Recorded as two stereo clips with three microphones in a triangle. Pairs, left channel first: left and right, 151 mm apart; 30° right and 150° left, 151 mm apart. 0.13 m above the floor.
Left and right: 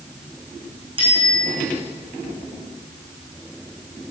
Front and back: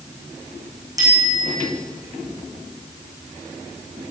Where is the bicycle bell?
145° right, 5.5 m.